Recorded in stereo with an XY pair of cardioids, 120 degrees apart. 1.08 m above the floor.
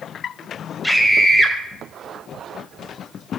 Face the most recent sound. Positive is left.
turn(degrees=5)